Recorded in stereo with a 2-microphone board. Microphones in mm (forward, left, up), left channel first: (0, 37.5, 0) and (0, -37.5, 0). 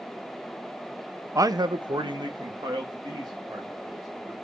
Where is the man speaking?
45° right (ahead or behind), 0.5 m; by 4.3 s 65° right (ahead or behind), 4 m.